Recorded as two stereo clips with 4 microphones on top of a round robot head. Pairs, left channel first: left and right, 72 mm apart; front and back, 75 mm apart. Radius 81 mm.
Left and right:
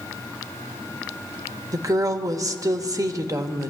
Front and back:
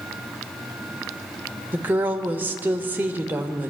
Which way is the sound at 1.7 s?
120° right.